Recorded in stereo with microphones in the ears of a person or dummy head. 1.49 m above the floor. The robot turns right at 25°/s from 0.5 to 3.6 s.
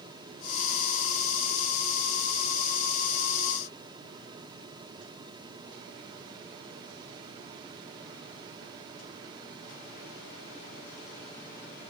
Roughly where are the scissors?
I don't hear scissors.